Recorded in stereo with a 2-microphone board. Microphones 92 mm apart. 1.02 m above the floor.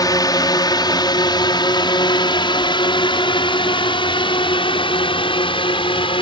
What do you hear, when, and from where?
0.0 s a drone: 45° left (ahead or behind); by 6.2 s 70° left (ahead or behind)